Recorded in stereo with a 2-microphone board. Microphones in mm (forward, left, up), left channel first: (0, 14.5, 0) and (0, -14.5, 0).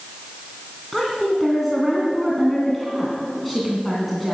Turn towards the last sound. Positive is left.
turn(degrees=5)  # may be behind; listen again after turning